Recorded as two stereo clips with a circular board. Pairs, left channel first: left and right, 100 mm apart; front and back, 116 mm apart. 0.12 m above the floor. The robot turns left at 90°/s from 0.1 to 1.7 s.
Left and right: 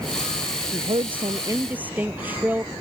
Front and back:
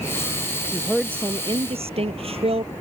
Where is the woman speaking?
70° right; by 2.7 s 160° right.